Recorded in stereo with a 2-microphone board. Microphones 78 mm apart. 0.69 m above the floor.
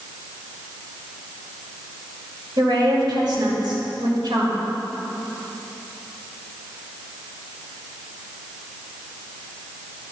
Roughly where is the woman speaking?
Right.